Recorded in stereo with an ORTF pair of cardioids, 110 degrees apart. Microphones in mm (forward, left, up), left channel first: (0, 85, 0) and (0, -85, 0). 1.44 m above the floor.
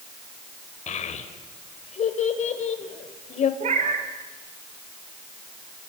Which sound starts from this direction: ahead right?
A cat meowing, at 3.6 s.